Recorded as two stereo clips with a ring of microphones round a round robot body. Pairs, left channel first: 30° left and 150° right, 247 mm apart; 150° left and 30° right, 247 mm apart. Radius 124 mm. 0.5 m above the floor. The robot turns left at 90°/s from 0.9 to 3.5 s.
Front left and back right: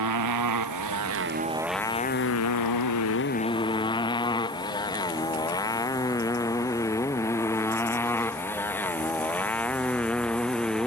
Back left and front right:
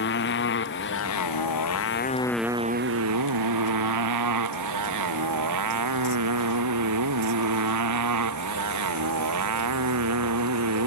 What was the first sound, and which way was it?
A motorcycle, 160° right.